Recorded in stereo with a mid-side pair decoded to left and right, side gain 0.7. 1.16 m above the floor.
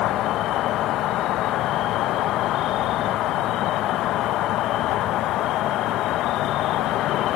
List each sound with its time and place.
0.0 s an insect: 55° left